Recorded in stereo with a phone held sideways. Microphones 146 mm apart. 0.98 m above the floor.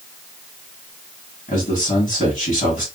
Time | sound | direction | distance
1.5 | a man speaking | 60° left (ahead or behind) | 1.5 m